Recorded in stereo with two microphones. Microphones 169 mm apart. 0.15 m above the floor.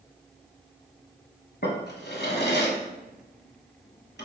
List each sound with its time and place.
1.6 s a drawer: 65° left (ahead or behind), 0.8 m